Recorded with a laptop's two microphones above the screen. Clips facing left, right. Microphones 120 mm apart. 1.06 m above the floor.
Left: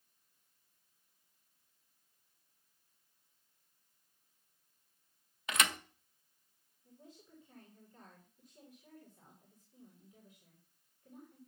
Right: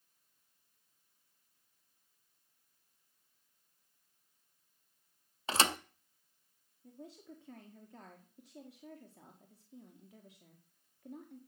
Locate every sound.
5.5 s a thud: 30° right (ahead or behind), 0.6 m
6.8 s a woman speaking: 80° right, 1.8 m